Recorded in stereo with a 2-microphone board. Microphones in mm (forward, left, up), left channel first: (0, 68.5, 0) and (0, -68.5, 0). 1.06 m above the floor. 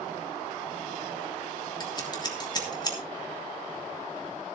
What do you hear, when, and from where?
1.8 s scissors: 30° left (ahead or behind), 3 m